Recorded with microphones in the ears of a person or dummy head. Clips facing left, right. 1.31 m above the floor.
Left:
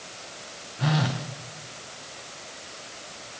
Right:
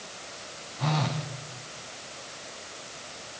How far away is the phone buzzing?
About 1.1 m.